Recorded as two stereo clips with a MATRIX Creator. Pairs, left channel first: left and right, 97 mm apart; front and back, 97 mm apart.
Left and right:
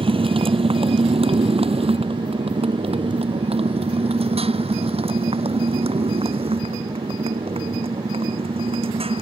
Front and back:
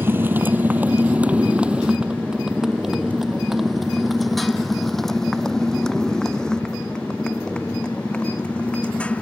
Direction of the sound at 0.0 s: 115° right.